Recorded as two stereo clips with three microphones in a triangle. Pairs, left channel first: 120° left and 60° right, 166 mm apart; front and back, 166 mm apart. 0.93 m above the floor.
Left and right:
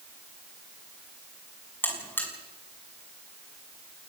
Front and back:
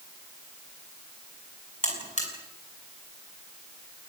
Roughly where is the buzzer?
Ahead left.